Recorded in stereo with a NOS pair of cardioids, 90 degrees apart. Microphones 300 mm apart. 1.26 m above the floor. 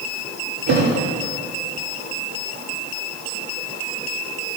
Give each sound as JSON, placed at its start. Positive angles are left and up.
{"t": 0.7, "sound": "a thud", "azimuth_deg": -65, "distance_m": 7.0}